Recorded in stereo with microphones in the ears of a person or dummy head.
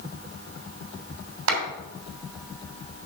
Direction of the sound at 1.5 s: 80° right.